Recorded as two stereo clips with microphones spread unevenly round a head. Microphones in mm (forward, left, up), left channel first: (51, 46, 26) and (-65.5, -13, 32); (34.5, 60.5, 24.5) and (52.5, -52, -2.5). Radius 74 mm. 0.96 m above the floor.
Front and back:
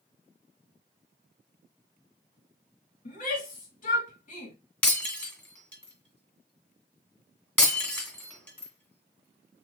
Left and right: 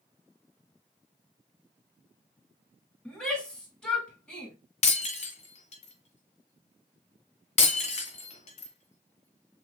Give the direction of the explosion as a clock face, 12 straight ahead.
I don't hear an explosion.